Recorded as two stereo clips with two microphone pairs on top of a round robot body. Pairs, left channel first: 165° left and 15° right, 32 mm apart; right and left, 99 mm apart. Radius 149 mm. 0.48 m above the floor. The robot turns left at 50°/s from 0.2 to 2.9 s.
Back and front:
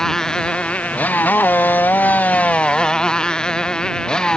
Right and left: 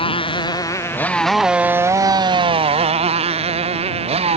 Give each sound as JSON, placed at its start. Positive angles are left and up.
{"t": 0.0, "sound": "a motorcycle", "azimuth_deg": -125}